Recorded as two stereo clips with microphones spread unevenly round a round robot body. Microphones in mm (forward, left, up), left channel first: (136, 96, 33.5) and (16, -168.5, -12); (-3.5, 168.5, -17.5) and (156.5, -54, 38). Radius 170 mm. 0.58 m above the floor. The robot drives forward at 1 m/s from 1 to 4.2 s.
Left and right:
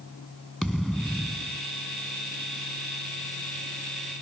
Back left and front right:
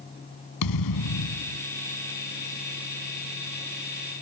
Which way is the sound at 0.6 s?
155° left.